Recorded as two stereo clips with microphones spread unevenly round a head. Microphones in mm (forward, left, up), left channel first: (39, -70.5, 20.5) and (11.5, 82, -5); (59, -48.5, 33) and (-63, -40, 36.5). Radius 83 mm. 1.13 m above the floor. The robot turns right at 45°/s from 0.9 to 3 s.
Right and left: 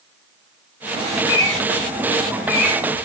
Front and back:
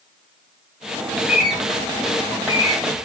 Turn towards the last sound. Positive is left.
turn(degrees=-30)